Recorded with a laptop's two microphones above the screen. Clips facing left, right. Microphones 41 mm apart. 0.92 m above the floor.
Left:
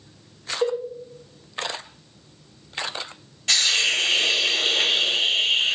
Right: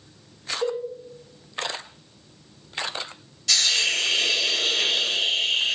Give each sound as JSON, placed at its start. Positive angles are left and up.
{"t": 0.6, "sound": "a cowbell", "side_deg": 40, "distance_m": 0.6}
{"t": 3.5, "sound": "a hiss", "side_deg": 40, "distance_m": 0.9}